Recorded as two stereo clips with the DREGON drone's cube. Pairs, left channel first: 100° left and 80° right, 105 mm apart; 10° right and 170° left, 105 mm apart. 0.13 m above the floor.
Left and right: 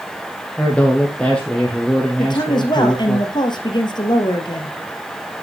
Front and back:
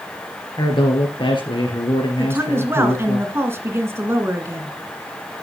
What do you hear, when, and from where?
0.6 s a man speaking: 20° left, 2.5 m
2.2 s a woman speaking: 115° left, 1.9 m